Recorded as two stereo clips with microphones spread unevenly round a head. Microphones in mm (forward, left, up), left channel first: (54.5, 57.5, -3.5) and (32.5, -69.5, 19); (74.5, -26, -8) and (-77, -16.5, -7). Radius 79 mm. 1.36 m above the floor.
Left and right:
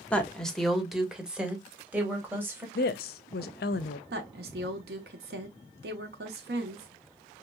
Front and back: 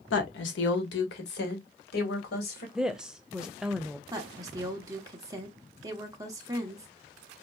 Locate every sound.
0.1 s a woman speaking: straight ahead, 1.3 m; by 2.6 s 25° right, 2.5 m
2.8 s a woman speaking: 90° left, 0.5 m
4.1 s a woman speaking: 115° right, 1.0 m